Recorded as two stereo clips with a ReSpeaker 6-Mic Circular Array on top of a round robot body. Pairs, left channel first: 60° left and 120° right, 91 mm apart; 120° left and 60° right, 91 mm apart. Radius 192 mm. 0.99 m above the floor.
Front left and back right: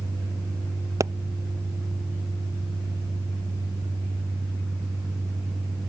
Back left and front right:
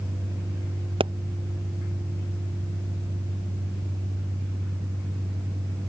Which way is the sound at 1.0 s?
65° right.